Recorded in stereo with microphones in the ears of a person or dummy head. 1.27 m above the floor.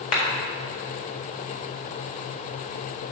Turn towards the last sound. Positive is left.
turn(degrees=45)  # may be behind; listen again after turning